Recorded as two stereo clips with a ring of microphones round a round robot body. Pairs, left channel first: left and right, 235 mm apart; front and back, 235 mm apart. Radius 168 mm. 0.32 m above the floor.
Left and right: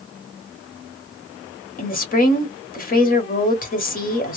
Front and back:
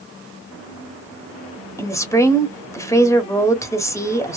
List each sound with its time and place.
1.8 s a woman speaking: 70° left, 1.3 m